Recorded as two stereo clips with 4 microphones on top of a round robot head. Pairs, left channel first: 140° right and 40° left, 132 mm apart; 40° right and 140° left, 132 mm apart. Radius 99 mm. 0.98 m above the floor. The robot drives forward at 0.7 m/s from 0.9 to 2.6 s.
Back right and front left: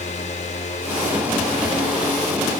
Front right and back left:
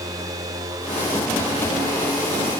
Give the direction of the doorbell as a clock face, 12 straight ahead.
No doorbell in this recording.